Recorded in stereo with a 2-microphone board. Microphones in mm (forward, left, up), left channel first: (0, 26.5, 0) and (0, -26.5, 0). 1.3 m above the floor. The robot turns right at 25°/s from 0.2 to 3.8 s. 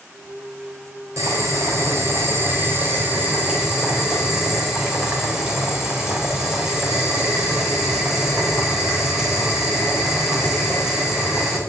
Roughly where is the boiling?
Right.